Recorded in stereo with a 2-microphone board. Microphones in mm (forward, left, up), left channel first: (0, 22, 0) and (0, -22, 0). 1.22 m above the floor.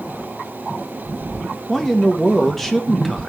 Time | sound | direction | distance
1.7 | a man speaking | 5° left (ahead or behind) | 0.8 m